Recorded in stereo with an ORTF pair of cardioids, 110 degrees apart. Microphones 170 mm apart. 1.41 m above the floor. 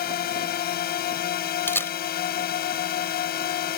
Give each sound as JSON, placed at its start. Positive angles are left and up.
{"t": 0.0, "sound": "a drone", "azimuth_deg": 65}
{"t": 1.7, "sound": "a camera shutter", "azimuth_deg": 15}